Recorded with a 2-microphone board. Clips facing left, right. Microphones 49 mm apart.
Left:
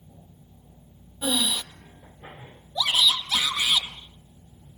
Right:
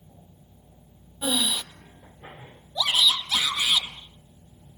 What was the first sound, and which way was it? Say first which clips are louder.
Breathing: even; 5° right (ahead or behind).